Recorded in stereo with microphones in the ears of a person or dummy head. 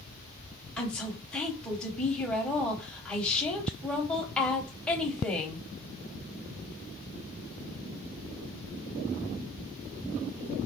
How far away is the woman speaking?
About 1.0 m.